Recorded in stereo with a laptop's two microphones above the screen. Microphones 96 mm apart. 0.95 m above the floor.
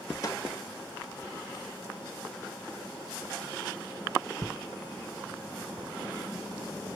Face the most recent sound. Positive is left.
turn(degrees=40)  # may be behind; listen again after turning